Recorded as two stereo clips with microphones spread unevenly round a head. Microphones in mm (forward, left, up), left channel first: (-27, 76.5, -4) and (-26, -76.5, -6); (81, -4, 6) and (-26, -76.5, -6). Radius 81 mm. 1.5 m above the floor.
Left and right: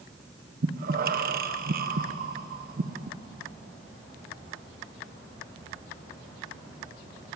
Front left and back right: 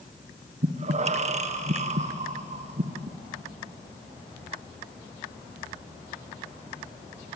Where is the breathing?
115° right, 1.2 m.